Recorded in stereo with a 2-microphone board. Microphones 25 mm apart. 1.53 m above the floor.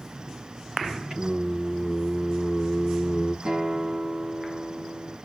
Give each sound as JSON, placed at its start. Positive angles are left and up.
{"t": 1.1, "sound": "singing", "side_deg": -45, "distance_m": 5.0}
{"t": 3.5, "sound": "a guitar", "side_deg": -60, "distance_m": 4.0}